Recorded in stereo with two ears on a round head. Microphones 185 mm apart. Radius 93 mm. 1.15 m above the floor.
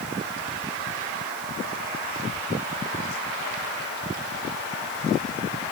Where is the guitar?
No guitar in this recording.